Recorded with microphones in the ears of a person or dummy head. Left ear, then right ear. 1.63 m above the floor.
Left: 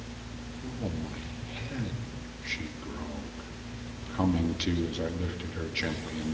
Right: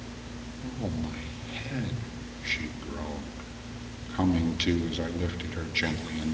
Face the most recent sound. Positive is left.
turn(degrees=-15)  # may be behind; listen again after turning